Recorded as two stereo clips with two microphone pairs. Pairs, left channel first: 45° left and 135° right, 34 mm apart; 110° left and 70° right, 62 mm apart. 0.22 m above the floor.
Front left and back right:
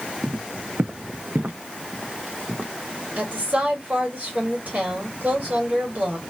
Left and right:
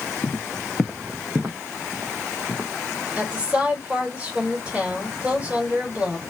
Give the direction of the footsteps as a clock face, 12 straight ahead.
6 o'clock.